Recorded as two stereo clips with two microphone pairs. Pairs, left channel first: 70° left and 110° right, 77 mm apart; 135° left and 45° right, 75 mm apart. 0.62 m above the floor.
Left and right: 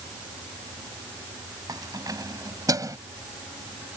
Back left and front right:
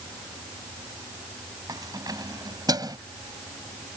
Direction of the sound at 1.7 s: 80° right.